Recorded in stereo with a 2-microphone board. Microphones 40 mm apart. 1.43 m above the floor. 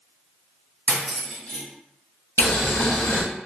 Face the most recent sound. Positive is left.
turn(degrees=80)